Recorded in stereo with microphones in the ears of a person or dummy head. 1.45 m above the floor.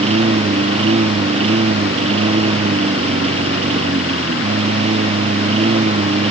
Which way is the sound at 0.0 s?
35° right (ahead or behind).